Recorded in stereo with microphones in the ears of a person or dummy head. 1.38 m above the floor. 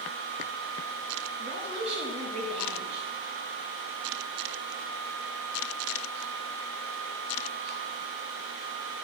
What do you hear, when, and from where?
1.4 s a woman speaking: 30° right (ahead or behind), 1.1 m